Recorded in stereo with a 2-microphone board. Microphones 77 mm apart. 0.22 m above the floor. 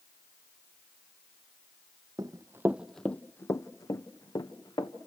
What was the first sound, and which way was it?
Running footsteps, 55° right (ahead or behind).